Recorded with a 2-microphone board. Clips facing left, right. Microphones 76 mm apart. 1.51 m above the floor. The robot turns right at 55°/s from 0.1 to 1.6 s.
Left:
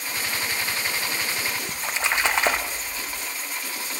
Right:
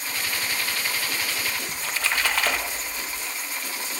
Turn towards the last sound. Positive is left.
turn(degrees=20)  # may be behind; listen again after turning